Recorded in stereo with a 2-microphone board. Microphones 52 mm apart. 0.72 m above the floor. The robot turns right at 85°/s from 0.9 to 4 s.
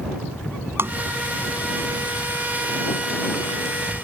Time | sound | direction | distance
0.8 | tapping | 50° right (ahead or behind) | ?